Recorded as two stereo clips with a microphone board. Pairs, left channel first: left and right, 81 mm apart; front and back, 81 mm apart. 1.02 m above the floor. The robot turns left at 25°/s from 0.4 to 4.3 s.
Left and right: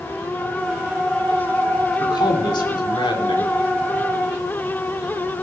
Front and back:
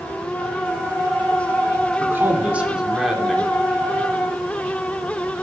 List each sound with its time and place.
2.0 s a man speaking: 120° left, 2.5 m; by 3.5 s 85° left, 2.5 m